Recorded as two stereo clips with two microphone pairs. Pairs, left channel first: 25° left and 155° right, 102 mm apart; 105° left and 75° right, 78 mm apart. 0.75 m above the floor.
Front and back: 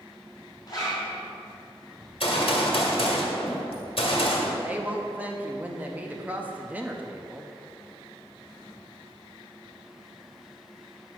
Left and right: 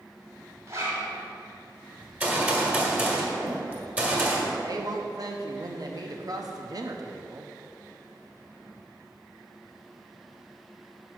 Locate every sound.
0.7 s a zipper: 30° right, 2.5 m
2.0 s a gunshot: 5° right, 1.4 m
4.6 s a woman speaking: 85° right, 0.6 m